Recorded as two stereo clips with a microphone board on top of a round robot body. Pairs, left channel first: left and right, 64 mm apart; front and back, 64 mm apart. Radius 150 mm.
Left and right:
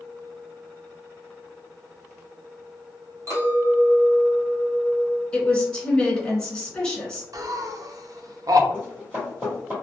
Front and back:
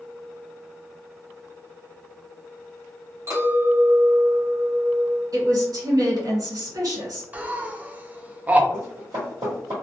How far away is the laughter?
About 0.6 m.